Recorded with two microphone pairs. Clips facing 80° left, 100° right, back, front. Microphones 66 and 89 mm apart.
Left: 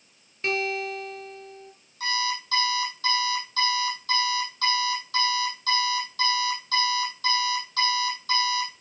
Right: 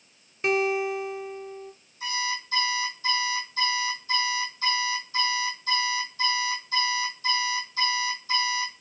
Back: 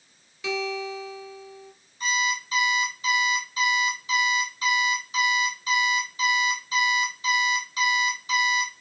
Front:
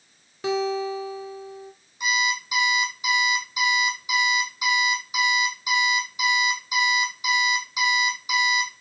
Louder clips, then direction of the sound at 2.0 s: Left 2 dB, front 1 dB; 75° left.